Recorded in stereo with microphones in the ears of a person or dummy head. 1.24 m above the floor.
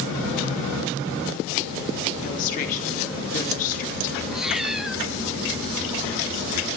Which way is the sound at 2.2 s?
50° left (ahead or behind).